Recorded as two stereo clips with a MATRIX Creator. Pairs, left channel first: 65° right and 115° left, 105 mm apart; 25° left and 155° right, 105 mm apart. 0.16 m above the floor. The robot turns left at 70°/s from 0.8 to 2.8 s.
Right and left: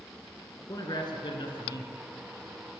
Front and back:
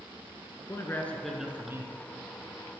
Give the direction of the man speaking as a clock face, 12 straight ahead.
1 o'clock.